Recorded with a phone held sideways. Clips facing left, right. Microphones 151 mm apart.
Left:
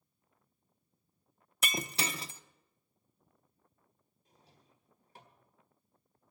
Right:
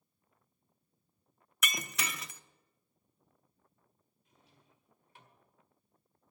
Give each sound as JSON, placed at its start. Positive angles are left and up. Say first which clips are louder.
{"t": 1.6, "sound": "breaking glass", "louder": "left 3 dB", "side_deg": 30, "distance_m": 0.6}
{"t": 4.2, "sound": "a drawer", "louder": "left 1 dB", "side_deg": 35, "distance_m": 1.7}